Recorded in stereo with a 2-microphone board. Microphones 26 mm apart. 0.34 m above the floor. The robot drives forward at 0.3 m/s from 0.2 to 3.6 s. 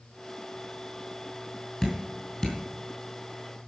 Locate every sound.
1.8 s dripping: 10° left (ahead or behind), 4.5 m